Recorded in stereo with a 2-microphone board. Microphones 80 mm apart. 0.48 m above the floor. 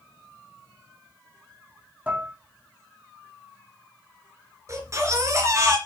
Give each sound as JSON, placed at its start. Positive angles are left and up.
{"t": 2.1, "sound": "dishes clattering", "side_deg": -20, "distance_m": 2.5}
{"t": 4.7, "sound": "a baby crying", "side_deg": -40, "distance_m": 3.0}